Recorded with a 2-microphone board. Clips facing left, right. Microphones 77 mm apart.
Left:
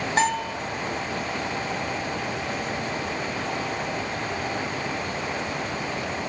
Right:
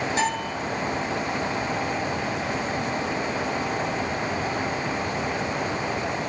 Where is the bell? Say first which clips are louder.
Left 6 dB; 50° left (ahead or behind), 2.5 m.